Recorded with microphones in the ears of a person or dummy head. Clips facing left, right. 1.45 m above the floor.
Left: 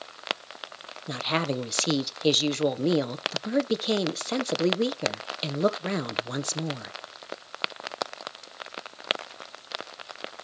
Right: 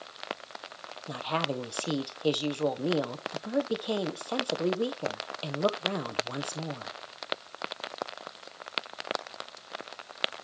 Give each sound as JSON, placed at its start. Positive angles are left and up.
{"t": 1.1, "sound": "a woman speaking", "side_deg": 30, "distance_m": 0.9}